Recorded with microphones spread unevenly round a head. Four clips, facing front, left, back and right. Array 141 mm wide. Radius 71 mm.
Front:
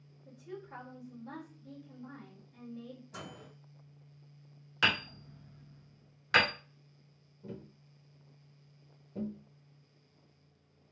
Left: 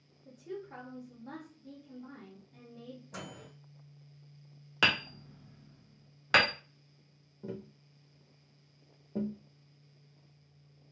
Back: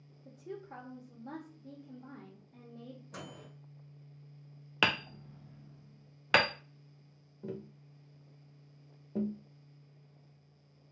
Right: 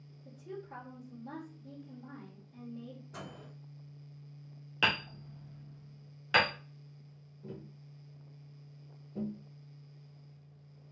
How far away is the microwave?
About 1.8 m.